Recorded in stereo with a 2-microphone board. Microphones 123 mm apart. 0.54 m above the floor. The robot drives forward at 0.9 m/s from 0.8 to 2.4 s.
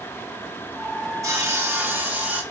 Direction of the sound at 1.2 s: 25° right (ahead or behind).